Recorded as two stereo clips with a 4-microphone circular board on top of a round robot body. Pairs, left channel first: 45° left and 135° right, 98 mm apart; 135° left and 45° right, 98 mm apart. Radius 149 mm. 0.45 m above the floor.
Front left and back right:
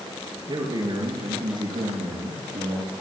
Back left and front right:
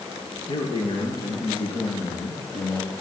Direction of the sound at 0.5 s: 175° left.